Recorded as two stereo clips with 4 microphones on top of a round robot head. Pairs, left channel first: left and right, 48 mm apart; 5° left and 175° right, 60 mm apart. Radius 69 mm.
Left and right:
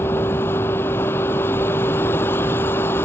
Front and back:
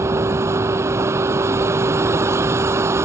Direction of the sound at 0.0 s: 140° left.